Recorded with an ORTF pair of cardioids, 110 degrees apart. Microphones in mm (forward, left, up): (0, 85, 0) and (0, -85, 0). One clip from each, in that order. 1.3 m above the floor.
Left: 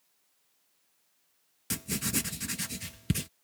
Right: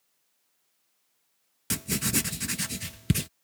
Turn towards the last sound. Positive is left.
turn(degrees=-25)